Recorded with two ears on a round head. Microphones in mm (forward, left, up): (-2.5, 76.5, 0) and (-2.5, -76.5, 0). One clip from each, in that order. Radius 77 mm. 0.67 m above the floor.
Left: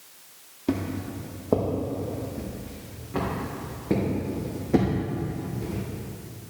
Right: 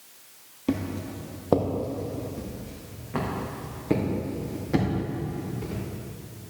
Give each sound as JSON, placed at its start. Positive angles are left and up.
{"t": 0.7, "sound": "footsteps", "side_deg": -15, "distance_m": 1.1}